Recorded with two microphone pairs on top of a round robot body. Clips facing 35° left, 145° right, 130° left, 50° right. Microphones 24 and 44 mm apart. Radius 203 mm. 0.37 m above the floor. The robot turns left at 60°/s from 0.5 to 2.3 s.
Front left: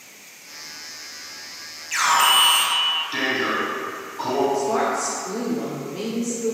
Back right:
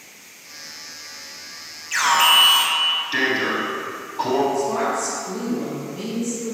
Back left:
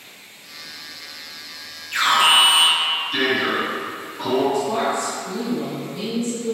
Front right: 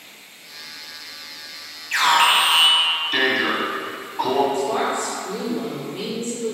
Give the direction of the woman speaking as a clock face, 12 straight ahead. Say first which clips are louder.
Even, even; 12 o'clock.